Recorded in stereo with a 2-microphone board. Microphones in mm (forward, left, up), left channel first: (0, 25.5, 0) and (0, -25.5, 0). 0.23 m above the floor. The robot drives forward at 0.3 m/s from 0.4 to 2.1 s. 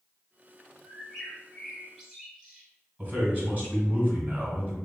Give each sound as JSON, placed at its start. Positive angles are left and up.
{"t": 0.8, "sound": "a bird", "side_deg": 0, "distance_m": 0.9}
{"t": 3.0, "sound": "a man speaking", "side_deg": -30, "distance_m": 1.4}